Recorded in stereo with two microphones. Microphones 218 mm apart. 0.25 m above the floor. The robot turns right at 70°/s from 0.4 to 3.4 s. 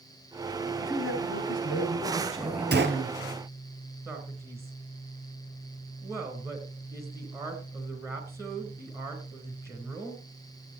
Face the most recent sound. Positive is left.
turn(degrees=-10)  # may be behind; listen again after turning